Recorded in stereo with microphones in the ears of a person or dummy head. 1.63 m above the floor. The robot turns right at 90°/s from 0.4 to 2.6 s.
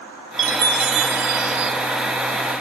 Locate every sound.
0.4 s a chime: 135° right, 0.7 m; by 1.7 s 15° right, 0.7 m